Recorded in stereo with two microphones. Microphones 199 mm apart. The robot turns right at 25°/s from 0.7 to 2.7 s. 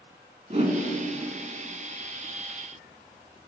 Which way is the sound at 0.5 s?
35° right (ahead or behind).